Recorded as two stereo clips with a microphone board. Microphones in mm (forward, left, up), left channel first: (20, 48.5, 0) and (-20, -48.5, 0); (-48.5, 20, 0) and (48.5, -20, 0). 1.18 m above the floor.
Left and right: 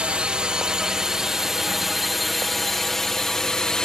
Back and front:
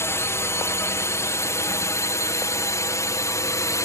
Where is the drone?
Straight behind; by 3.9 s 145° left.